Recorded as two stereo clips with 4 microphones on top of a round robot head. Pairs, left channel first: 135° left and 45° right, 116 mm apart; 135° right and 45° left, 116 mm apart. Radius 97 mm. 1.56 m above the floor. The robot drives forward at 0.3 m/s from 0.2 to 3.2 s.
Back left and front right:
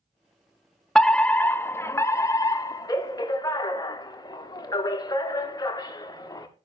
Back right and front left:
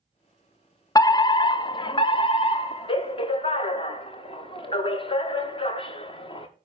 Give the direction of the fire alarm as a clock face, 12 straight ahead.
5 o'clock.